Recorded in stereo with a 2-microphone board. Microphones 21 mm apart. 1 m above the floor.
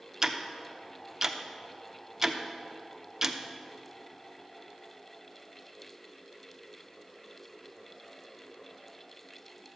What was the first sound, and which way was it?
Ticking, 30° right (ahead or behind).